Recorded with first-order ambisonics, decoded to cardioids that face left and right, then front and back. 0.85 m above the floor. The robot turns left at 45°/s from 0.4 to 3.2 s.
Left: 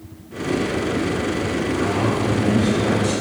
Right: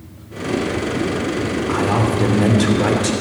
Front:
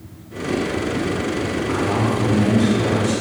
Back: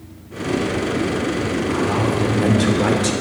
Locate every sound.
1.7 s a man speaking: 80° right, 3 m; by 3.1 s 145° right, 3 m